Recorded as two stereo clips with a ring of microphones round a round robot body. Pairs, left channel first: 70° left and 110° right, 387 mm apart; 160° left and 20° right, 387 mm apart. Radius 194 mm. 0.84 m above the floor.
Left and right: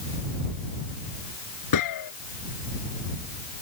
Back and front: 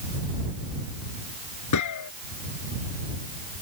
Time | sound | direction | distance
1.7 | a gunshot | 110° left | ?